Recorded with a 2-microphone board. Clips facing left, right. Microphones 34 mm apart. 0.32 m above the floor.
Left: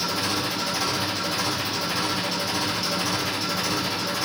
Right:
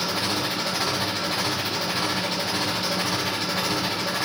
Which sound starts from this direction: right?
An engine running, at 0.0 s.